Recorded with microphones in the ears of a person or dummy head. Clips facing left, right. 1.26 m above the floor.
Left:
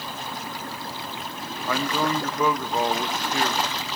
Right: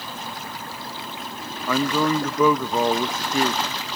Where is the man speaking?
70° right (ahead or behind), 0.9 m.